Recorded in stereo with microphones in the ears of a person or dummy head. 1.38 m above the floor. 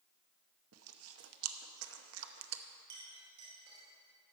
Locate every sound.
0.7 s chewing: 85° right, 0.7 m
2.9 s a clink: 65° right (ahead or behind), 3 m